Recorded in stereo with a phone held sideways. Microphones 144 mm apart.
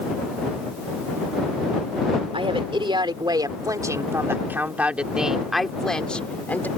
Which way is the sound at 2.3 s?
40° right (ahead or behind).